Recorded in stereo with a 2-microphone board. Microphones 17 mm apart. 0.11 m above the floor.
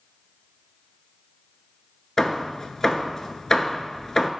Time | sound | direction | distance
2.2 | hammering | 25° left (ahead or behind) | 0.5 m